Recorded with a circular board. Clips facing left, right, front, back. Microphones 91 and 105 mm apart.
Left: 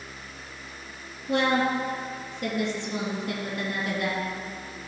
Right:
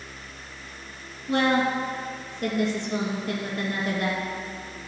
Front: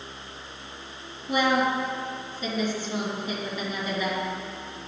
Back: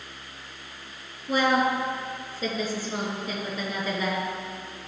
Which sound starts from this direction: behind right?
A woman speaking, at 1.3 s.